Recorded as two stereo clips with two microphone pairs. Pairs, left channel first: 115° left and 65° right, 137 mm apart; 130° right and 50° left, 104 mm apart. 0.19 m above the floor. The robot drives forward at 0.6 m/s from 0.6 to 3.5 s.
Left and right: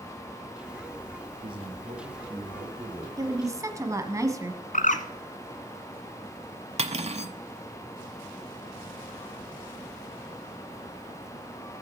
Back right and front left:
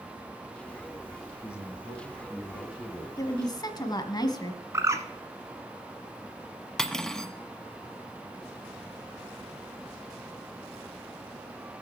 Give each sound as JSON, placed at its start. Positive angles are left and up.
{"t": 1.4, "sound": "a man speaking", "azimuth_deg": -20, "distance_m": 2.0}
{"t": 3.2, "sound": "a woman speaking", "azimuth_deg": -110, "distance_m": 1.4}
{"t": 4.7, "sound": "a bird", "azimuth_deg": 115, "distance_m": 1.0}
{"t": 6.8, "sound": "cutlery clinking", "azimuth_deg": -45, "distance_m": 0.8}